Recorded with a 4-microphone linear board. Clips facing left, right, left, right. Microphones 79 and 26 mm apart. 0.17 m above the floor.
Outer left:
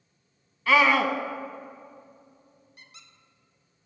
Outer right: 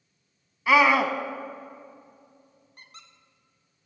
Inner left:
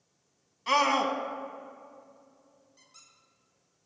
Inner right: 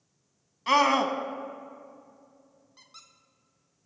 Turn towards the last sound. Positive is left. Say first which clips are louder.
# outer right 4 dB, inner right 7 dB
turn(degrees=-45)  # may be behind; listen again after turning